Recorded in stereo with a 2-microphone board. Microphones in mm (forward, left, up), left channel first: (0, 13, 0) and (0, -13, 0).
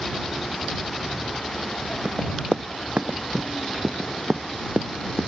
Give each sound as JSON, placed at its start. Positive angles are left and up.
{"t": 2.0, "sound": "running footsteps", "side_deg": -60}